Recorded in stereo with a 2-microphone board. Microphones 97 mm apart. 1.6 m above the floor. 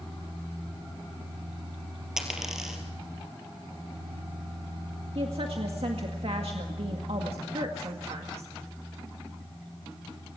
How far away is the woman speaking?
About 2.0 m.